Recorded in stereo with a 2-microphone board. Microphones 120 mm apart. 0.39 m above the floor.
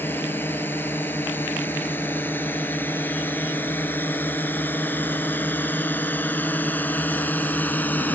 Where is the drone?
15° left (ahead or behind).